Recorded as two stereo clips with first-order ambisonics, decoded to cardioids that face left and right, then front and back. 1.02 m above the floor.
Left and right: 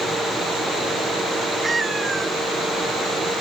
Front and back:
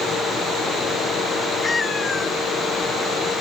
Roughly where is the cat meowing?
Ahead right.